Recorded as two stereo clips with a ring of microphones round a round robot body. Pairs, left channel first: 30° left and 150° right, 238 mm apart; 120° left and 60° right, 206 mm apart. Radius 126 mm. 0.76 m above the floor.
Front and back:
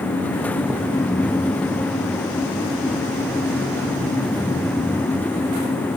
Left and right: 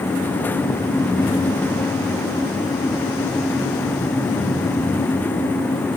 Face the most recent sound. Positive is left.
No sound to turn to.